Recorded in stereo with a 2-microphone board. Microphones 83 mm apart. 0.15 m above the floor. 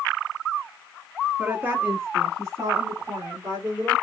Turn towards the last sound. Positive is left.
turn(degrees=-60)  # may be behind; listen again after turning